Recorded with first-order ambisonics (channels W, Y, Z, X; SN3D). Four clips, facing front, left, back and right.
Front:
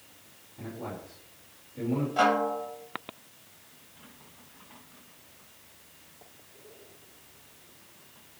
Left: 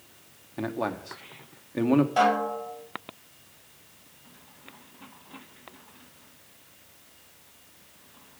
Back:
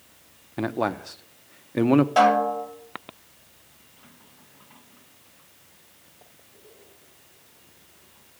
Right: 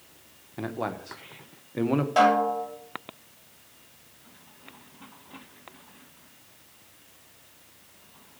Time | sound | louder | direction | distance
0.6 | a man speaking | left 2 dB, back 13 dB | 175° left | 0.8 m
2.2 | a snare drum | right 3 dB, back 6 dB | 140° right | 7 m